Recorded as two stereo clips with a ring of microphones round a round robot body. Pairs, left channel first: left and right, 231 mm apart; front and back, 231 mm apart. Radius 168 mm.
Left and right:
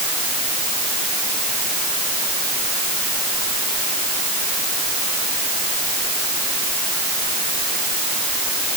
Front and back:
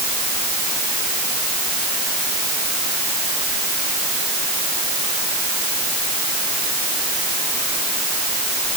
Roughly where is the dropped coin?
No dropped coin in this recording.